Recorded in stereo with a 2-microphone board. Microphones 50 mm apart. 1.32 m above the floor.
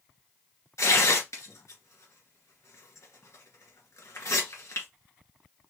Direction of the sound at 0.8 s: 85° left.